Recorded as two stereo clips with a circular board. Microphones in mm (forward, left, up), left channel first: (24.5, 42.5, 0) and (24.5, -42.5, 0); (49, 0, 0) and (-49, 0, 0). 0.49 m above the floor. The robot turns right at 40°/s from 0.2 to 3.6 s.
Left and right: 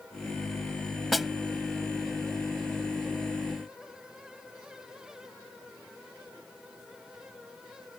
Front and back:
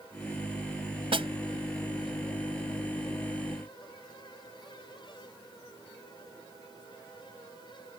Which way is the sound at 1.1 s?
Straight behind.